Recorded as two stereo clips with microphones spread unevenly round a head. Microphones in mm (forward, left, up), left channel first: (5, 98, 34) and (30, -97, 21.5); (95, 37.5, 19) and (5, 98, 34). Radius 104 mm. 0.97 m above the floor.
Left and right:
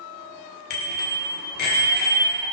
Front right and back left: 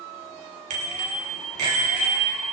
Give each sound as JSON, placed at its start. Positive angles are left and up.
{"t": 0.7, "sound": "a bicycle bell", "azimuth_deg": 145, "distance_m": 2.5}